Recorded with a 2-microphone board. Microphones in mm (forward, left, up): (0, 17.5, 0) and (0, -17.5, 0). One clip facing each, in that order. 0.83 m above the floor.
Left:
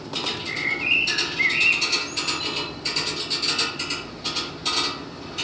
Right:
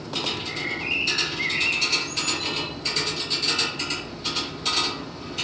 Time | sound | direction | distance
0.3 | a bird | 30° left (ahead or behind) | 5 m